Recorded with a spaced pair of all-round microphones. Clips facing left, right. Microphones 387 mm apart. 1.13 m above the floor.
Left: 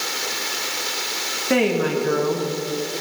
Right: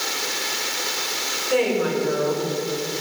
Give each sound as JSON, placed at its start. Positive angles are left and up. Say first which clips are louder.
{"t": 1.5, "sound": "a woman speaking", "louder": "left 1 dB", "side_deg": 75, "distance_m": 1.4}